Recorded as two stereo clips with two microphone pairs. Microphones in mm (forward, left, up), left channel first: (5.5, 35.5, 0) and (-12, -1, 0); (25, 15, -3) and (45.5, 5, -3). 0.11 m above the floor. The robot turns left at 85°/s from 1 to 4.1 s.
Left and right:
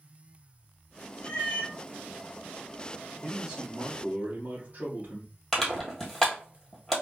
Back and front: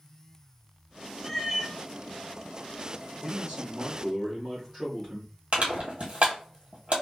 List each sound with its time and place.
1.2 s a cat meowing: 85° left, 0.9 m; by 1.8 s 35° left, 0.9 m
3.2 s a man speaking: 10° right, 1.5 m; by 5.3 s 85° right, 1.5 m
5.5 s crushing: 15° right, 1.5 m